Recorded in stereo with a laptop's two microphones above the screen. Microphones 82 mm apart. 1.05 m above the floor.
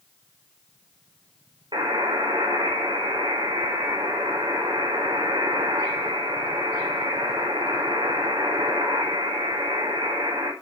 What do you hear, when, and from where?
1.7 s a buzzer: 80° right, 4.5 m